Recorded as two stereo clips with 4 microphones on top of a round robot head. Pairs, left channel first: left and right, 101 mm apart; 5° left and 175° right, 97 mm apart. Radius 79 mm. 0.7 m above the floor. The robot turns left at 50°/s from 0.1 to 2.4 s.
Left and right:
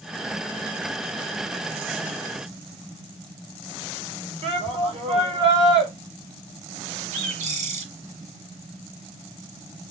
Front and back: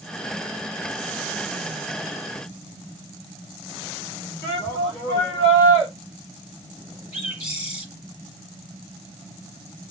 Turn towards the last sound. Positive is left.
turn(degrees=-95)